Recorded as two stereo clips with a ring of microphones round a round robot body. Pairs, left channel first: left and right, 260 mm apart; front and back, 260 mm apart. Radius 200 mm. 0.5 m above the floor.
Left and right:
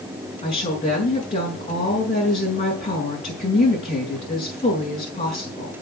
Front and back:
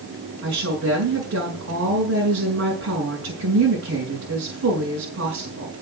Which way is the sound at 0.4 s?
150° left.